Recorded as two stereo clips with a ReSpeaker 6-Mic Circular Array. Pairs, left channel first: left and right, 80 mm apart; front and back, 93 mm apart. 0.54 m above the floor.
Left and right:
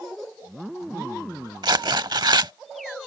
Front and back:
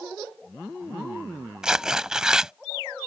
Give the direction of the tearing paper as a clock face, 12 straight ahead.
3 o'clock.